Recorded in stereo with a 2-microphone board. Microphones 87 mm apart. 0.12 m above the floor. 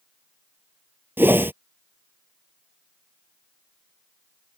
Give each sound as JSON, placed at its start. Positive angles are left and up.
{"t": 1.2, "sound": "a whoosh", "side_deg": -25}